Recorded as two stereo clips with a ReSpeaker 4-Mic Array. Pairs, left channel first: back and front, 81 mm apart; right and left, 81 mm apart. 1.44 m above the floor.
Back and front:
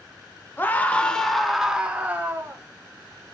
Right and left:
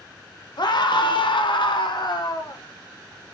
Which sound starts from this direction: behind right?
A scream, at 0.6 s.